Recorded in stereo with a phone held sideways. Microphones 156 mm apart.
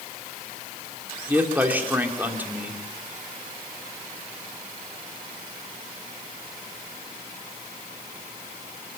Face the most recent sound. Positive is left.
turn(degrees=-10)  # may be behind; listen again after turning